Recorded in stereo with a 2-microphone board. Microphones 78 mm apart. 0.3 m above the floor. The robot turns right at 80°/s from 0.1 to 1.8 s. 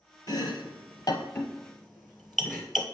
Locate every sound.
0.3 s chopping: 60° left (ahead or behind), 1.1 m; by 2.8 s 5° right (ahead or behind), 1.1 m